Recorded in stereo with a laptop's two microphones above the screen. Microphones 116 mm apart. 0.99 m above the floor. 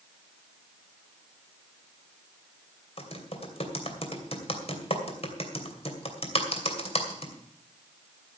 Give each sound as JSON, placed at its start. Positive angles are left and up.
{"t": 3.0, "sound": "typing on a keyboard", "side_deg": 55, "distance_m": 2.5}